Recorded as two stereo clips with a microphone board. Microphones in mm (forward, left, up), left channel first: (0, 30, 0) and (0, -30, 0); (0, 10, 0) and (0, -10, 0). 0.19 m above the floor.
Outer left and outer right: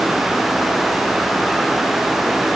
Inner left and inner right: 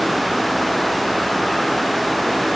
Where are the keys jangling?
No keys jangling in this recording.